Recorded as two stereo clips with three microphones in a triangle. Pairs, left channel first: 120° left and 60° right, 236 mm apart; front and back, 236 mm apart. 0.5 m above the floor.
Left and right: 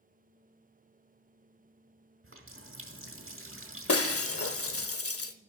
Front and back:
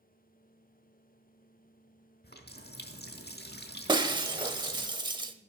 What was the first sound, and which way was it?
A running tap, 45° right.